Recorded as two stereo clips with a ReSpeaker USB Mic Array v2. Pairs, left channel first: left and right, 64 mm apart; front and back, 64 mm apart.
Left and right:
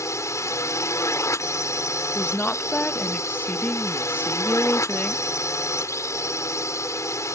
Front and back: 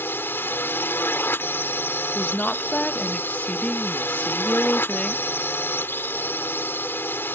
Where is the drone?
55° left.